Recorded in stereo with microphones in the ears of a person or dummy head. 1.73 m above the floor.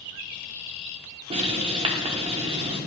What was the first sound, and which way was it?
Writing, 30° right (ahead or behind).